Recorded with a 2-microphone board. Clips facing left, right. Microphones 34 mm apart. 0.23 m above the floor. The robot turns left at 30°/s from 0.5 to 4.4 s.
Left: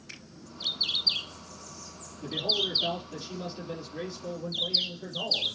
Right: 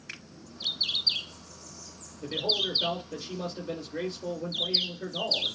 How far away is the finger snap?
About 1.7 m.